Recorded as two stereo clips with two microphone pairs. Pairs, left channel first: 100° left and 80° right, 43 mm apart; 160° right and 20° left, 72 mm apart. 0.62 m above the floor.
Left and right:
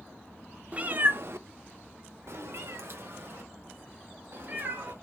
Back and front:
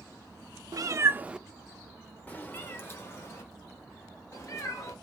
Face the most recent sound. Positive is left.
turn(degrees=-115)